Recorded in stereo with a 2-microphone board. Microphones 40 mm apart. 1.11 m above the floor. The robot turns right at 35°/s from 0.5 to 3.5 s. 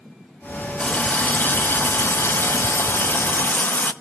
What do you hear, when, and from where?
0.8 s a running tap: 30° left, 0.6 m; by 3.9 s 125° left, 0.6 m